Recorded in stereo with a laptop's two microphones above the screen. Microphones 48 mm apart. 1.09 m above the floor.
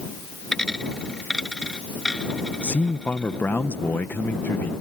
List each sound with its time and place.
0.5 s a dropped coin: 10° left (ahead or behind)
2.6 s a man speaking: 45° left (ahead or behind)